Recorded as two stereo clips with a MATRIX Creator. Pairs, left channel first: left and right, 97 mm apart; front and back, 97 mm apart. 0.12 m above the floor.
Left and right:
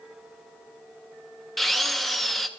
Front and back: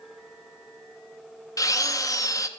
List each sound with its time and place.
1.6 s a drill: straight ahead, 0.7 m